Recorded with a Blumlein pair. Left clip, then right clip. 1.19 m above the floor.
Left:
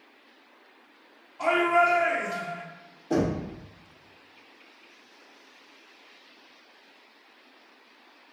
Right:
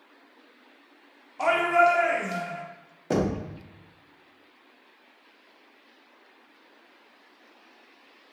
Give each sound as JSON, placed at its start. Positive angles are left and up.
{"t": 1.4, "sound": "a shout", "azimuth_deg": -25, "distance_m": 1.1}
{"t": 3.1, "sound": "knocking", "azimuth_deg": -55, "distance_m": 0.8}